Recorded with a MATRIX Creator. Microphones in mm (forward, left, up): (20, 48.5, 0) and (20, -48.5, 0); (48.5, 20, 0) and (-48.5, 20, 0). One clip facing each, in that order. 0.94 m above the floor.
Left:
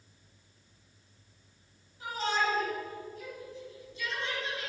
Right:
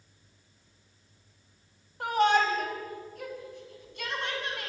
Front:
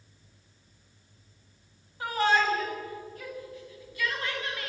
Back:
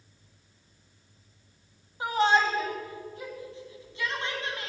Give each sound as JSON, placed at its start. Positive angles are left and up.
{"t": 2.0, "sound": "a shout", "azimuth_deg": -110, "distance_m": 5.0}